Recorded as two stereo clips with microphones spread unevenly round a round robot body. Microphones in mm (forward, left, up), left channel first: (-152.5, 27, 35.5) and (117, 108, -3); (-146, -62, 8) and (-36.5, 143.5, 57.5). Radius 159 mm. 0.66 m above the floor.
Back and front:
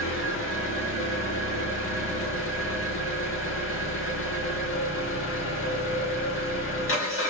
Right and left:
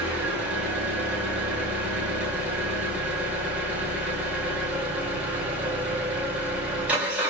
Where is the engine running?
150° left, 1.9 m.